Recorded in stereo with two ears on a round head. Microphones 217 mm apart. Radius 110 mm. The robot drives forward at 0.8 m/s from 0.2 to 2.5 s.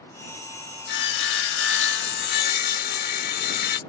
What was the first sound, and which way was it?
Sawing, 40° left (ahead or behind).